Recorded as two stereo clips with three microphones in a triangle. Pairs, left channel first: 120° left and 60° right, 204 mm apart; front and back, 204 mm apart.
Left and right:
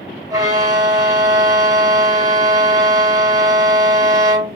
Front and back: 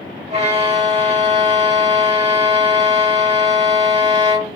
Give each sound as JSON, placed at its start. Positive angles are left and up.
{"t": 0.3, "sound": "a violin", "azimuth_deg": -130, "distance_m": 1.9}